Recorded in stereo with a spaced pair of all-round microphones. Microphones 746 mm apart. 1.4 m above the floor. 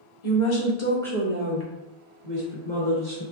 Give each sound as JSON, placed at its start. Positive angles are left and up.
{"t": 0.2, "sound": "a woman speaking", "side_deg": 55, "distance_m": 0.7}